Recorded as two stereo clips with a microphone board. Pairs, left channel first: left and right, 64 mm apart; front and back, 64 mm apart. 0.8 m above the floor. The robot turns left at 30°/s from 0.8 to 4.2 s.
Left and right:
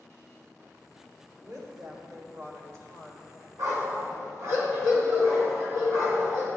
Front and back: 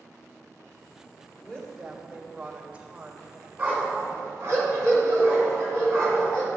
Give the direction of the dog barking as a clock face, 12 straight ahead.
4 o'clock.